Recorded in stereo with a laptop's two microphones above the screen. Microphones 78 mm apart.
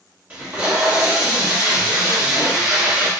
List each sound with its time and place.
0.3 s tape being pulled: 20° right (ahead or behind), 1.3 m